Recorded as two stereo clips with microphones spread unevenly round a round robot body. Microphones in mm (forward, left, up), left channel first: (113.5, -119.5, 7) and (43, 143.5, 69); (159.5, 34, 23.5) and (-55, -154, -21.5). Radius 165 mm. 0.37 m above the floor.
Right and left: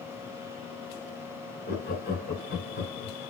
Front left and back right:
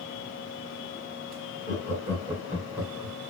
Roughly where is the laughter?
Right.